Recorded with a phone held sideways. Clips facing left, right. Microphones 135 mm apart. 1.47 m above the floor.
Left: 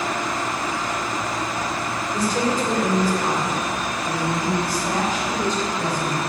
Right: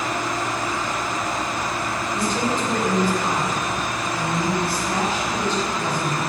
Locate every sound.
2.1 s a woman speaking: 40° left (ahead or behind), 5.5 m; by 6.2 s 45° left (ahead or behind), 8 m